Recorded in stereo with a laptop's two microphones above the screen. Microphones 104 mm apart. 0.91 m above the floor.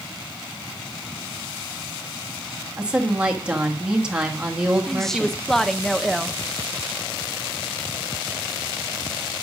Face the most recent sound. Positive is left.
turn(degrees=5)  # may be behind; listen again after turning